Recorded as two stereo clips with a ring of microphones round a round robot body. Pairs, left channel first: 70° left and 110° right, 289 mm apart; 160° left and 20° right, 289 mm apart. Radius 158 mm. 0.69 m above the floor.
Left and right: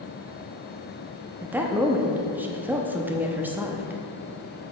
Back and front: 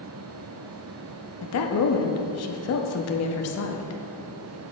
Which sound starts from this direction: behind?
A woman speaking, at 1.4 s.